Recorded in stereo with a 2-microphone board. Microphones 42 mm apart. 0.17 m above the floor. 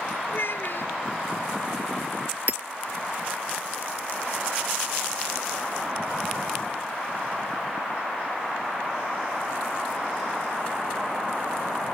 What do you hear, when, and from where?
0.3 s a child speaking: 60° left (ahead or behind)
2.5 s hammering: 40° right (ahead or behind)